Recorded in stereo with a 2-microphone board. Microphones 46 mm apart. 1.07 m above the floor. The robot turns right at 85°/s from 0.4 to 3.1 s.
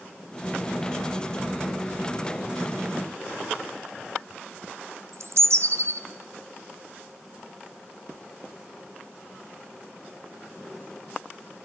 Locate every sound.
5.1 s a bird: 70° right (ahead or behind), 0.6 m